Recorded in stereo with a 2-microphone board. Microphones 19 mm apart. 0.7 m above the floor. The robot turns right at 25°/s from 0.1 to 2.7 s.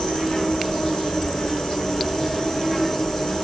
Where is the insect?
75° left, 1.0 m; by 3.4 s 140° left, 1.0 m.